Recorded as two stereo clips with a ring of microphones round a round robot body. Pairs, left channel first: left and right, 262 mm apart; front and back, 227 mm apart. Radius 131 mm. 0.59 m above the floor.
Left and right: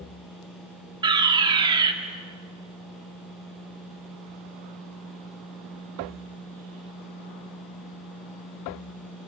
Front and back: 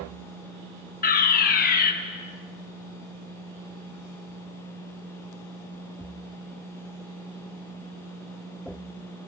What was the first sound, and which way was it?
A fire alarm, 25° right.